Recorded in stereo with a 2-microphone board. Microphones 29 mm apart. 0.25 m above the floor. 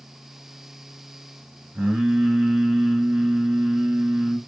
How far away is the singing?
About 2.5 m.